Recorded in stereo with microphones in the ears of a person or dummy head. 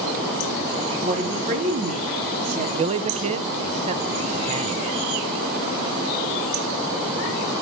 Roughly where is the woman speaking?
Right.